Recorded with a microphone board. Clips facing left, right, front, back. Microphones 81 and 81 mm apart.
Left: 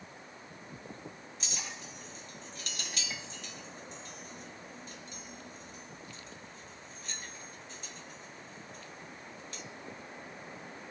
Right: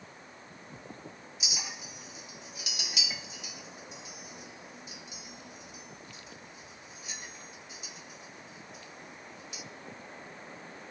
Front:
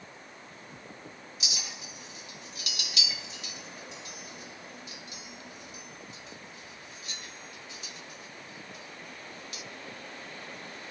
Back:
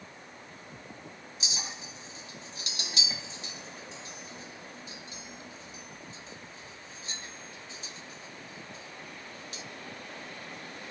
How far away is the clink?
About 0.7 m.